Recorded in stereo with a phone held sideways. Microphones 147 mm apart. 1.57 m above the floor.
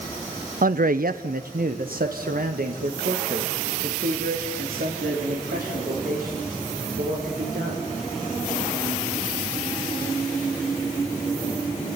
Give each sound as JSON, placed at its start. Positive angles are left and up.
{"t": 0.6, "sound": "a man speaking", "side_deg": -70, "distance_m": 0.7}